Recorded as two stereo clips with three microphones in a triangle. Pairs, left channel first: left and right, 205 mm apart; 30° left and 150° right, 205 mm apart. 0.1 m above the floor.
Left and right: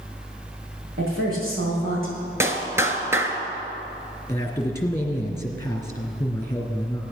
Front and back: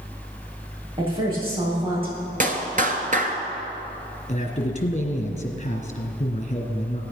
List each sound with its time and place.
1.0 s a woman speaking: 85° right, 5.5 m
2.4 s a clap: 160° right, 1.3 m
4.3 s a man speaking: 25° left, 1.9 m